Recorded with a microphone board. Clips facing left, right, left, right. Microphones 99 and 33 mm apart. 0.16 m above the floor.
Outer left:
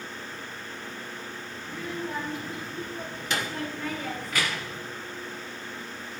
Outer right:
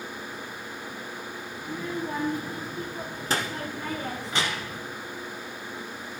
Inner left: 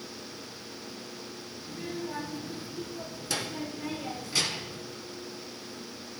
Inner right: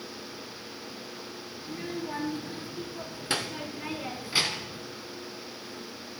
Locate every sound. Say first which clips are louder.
1.6 s a child speaking: outer right 3 dB, inner right 1 dB; 40° right (ahead or behind), 2 m; by 4.8 s 15° right (ahead or behind), 0.9 m